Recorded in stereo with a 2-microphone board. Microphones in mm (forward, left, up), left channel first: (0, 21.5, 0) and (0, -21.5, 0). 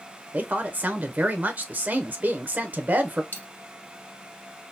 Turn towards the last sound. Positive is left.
turn(degrees=45)  # may be behind; listen again after turning